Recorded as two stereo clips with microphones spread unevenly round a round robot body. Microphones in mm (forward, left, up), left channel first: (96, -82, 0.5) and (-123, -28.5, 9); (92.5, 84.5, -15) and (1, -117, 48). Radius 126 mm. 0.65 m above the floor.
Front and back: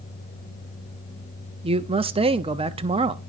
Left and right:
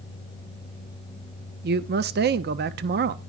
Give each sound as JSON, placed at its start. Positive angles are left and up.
{"t": 1.6, "sound": "a man speaking", "azimuth_deg": -145, "distance_m": 0.6}